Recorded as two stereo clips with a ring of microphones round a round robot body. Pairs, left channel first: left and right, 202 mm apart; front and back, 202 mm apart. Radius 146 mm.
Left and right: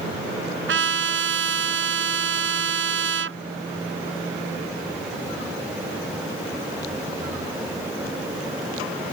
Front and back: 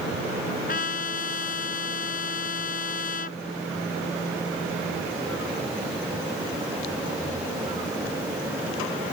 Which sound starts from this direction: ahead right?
A trumpet, at 0.7 s.